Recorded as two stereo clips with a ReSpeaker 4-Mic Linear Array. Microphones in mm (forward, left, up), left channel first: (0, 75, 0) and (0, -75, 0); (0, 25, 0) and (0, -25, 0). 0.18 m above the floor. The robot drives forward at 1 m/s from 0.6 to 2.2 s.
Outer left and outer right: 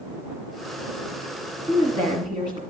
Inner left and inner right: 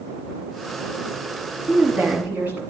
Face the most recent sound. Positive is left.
turn(degrees=-30)  # may be behind; listen again after turning